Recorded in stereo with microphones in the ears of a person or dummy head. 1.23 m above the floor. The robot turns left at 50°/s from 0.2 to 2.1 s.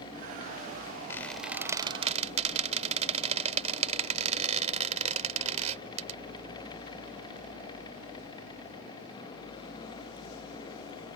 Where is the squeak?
15° left (ahead or behind); by 6.2 s 35° right (ahead or behind).